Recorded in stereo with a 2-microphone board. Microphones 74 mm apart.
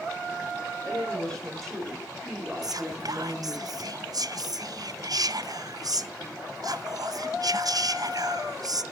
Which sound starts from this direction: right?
Whispering, at 2.6 s.